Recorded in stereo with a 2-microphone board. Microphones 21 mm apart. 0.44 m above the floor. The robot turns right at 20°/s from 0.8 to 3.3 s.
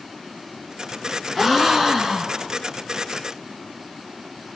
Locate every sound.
1.4 s a gasp: centre (ahead or behind), 0.5 m; by 2.5 s 25° right (ahead or behind), 0.5 m